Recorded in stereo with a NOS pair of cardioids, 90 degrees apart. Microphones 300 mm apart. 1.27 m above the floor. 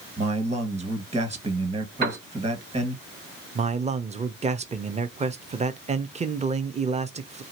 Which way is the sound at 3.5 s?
20° right.